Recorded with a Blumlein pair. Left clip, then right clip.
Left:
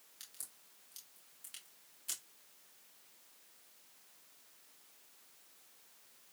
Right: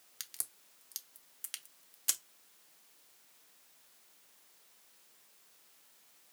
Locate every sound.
0.2 s a crack: 40° right, 0.9 m